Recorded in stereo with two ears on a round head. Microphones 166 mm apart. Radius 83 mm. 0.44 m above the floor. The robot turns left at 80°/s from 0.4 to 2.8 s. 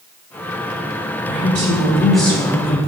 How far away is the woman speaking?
About 2.5 m.